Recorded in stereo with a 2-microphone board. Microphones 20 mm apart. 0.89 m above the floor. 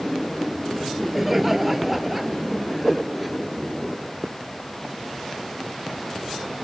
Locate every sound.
0.8 s laughter: 15° right (ahead or behind); by 3.3 s 5° right (ahead or behind)